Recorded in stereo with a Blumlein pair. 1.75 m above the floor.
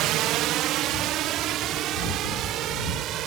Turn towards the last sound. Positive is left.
turn(degrees=-35)